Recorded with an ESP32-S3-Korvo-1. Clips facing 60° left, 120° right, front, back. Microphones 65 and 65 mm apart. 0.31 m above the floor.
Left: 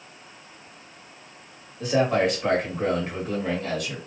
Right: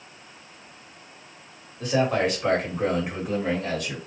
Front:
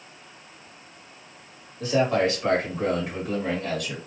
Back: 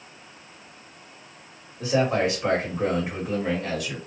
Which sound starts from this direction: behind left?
A man speaking, at 1.8 s.